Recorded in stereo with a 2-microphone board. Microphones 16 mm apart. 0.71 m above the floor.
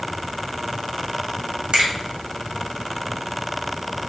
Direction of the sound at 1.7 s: 70° right (ahead or behind).